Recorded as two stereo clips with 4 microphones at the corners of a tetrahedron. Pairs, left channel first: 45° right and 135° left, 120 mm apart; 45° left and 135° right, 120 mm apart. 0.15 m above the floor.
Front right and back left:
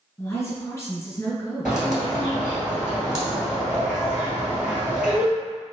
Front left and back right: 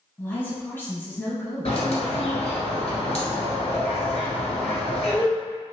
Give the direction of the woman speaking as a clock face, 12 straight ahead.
12 o'clock.